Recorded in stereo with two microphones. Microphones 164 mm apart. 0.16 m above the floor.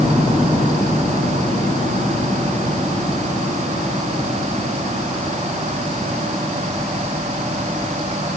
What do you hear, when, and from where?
Only background noise.